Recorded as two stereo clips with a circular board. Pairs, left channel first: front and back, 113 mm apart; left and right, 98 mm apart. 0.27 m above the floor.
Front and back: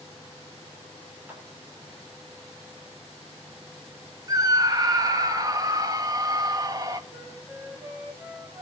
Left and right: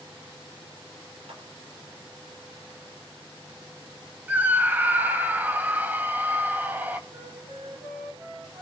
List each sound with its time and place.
1.3 s a clap: 105° right, 7 m
4.3 s a scream: 150° right, 1.7 m
7.1 s a flute: 105° right, 8.5 m